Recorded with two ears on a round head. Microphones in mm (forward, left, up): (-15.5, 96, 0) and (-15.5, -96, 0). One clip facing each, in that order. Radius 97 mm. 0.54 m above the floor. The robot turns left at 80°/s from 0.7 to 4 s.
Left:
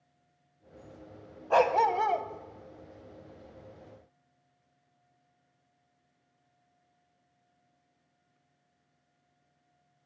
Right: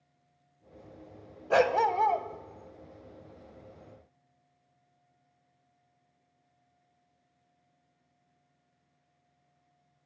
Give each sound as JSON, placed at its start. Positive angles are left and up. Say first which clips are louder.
{"t": 1.5, "sound": "a dog barking", "louder": "even", "azimuth_deg": -150, "distance_m": 0.7}